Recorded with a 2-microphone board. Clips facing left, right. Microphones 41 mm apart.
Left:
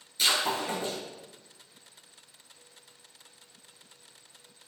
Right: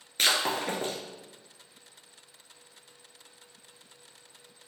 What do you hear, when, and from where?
0.2 s breaking glass: 70° right (ahead or behind), 0.9 m